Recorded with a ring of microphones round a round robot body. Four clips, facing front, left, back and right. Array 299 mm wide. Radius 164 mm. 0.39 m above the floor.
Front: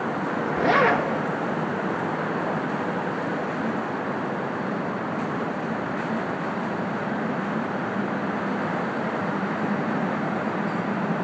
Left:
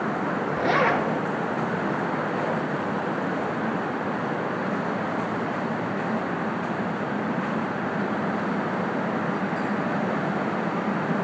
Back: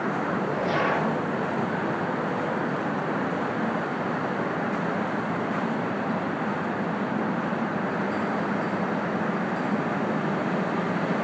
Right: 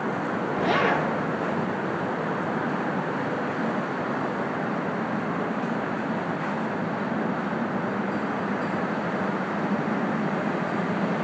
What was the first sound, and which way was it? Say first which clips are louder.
A zipper: left 1 dB, front 7 dB; 15° left.